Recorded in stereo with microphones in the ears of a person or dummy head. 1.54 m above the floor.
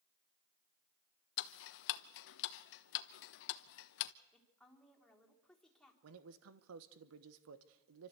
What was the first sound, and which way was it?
Ticking, 65° left (ahead or behind).